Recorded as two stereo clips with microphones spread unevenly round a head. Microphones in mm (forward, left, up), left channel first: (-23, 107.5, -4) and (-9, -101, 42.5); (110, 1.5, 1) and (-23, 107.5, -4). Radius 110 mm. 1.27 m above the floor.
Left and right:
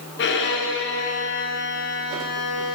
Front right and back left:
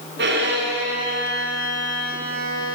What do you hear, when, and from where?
0.2 s a violin: 125° left, 1.2 m